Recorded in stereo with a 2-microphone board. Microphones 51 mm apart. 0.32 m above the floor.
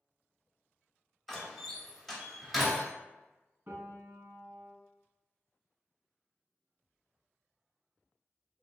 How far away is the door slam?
About 0.9 m.